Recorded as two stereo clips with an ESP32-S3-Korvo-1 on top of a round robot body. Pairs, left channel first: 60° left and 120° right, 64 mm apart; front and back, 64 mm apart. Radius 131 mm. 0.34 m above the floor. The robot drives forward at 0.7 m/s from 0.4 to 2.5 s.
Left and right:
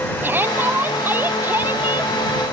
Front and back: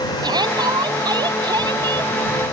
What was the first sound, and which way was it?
A shout, straight behind.